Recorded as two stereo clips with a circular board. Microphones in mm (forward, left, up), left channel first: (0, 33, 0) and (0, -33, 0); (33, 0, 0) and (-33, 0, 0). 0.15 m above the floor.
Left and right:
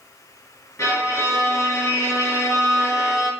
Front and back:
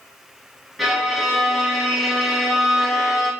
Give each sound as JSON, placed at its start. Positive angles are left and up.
{"t": 0.8, "sound": "a violin", "azimuth_deg": 100, "distance_m": 1.8}